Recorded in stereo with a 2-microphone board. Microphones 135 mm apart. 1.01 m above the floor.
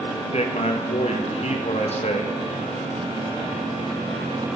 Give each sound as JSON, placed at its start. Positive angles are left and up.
{"t": 0.3, "sound": "a man speaking", "side_deg": 50, "distance_m": 1.0}